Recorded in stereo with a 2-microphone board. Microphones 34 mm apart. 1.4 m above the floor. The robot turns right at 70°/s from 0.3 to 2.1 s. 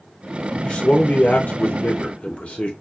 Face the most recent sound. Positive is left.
turn(degrees=130)